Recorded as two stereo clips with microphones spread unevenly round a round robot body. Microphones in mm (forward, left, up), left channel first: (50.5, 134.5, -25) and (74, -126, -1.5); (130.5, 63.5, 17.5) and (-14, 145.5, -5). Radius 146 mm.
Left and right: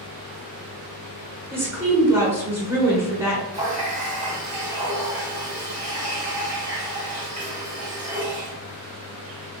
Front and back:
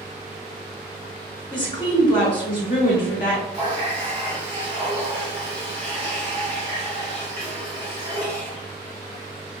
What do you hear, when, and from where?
1.5 s a woman speaking: 5° right, 1.1 m
3.5 s a running tap: 150° right, 0.7 m